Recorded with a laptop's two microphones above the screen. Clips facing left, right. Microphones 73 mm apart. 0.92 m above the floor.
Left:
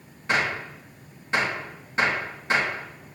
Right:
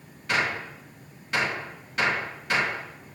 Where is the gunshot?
30° left (ahead or behind), 2 m.